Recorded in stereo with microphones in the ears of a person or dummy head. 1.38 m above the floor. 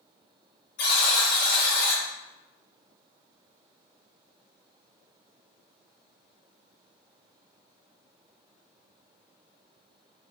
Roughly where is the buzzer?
Left.